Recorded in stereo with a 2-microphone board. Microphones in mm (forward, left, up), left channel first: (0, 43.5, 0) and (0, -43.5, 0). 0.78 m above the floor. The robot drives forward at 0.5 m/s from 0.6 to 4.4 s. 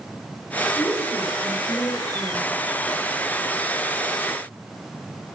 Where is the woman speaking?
50° left (ahead or behind), 3.5 m; by 2.5 s 65° left (ahead or behind), 3 m.